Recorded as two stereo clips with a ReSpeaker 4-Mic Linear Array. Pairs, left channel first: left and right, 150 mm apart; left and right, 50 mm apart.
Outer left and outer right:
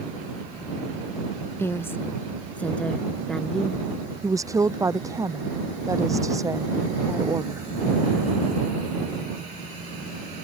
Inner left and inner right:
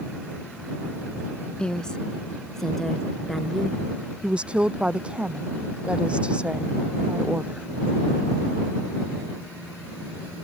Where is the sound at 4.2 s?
20° right (ahead or behind).